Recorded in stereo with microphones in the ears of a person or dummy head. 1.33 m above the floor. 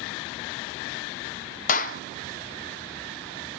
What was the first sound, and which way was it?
A clap, 50° left (ahead or behind).